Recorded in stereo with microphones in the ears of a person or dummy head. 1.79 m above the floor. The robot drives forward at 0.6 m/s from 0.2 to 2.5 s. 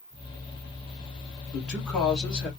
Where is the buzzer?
I don't hear a buzzer.